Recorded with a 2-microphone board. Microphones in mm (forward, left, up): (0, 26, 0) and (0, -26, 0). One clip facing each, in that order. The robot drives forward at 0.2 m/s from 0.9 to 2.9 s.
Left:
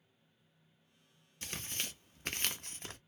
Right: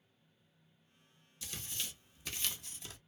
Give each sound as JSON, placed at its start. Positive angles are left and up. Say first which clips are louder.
{"t": 1.4, "sound": "tearing paper", "louder": "left 3 dB", "side_deg": 55, "distance_m": 0.5}